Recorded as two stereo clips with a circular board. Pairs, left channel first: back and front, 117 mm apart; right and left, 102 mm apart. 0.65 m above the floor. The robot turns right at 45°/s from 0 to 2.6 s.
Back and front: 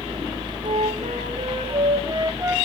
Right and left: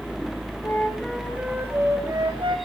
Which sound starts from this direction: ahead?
A flute, at 0.6 s.